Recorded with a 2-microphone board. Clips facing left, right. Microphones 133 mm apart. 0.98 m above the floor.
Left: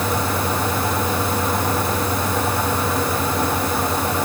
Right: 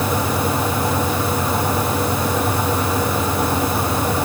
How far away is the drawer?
No drawer in this recording.